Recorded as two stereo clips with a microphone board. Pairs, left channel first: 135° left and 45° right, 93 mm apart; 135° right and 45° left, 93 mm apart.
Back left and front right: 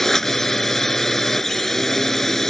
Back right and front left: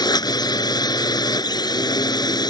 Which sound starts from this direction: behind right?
A drone, at 0.0 s.